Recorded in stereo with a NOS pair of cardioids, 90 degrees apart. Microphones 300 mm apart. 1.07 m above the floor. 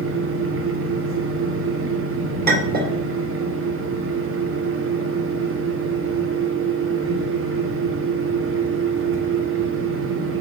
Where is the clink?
30° right, 2.5 m.